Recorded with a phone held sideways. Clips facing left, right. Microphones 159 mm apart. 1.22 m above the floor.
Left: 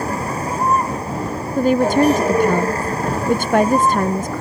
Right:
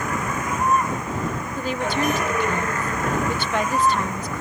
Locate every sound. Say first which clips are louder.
0.0 s a vehicle: left 4 dB; 35° left (ahead or behind)
1.6 s a woman speaking: left 12 dB; 45° left (ahead or behind)